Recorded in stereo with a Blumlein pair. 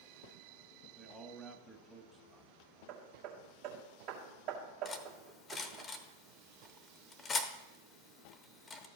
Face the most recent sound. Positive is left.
turn(degrees=15)